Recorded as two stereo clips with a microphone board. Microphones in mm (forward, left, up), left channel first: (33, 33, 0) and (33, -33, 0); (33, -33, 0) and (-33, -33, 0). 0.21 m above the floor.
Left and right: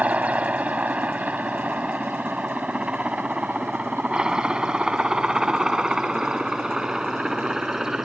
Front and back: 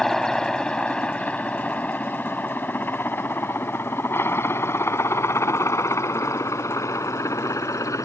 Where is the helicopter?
75° right; by 8.1 s 5° right.